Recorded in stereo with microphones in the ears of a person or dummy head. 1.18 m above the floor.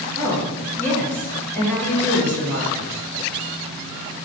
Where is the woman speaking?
10° left (ahead or behind), 1.5 m.